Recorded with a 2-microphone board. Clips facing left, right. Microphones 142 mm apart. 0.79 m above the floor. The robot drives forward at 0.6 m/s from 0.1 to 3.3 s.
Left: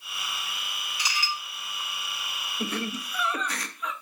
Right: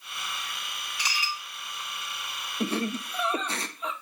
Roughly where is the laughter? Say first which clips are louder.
Right 3 dB; right.